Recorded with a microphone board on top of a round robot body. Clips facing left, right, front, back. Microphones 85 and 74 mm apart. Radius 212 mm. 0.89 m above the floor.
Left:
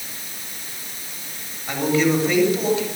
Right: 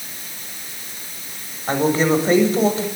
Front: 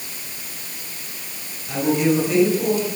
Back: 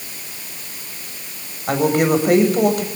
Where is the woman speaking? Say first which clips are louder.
Right 2 dB, back 3 dB; 145° right, 7 m.